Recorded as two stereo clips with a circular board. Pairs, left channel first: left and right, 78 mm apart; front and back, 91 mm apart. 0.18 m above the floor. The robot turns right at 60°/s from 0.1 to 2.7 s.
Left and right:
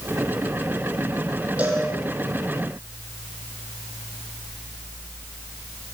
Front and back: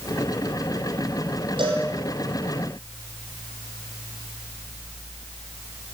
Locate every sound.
1.6 s a cowbell: 160° right, 7 m; by 1.9 s 145° right, 7 m